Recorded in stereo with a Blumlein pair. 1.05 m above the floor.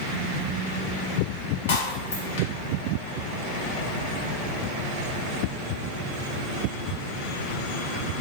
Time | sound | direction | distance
1.7 | breaking glass | 55° left | 1.9 m